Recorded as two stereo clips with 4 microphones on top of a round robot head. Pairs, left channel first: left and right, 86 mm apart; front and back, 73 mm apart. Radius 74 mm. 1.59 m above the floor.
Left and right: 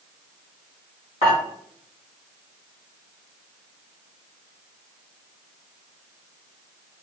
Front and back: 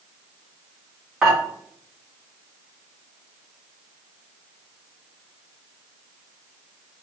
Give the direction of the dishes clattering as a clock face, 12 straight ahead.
9 o'clock.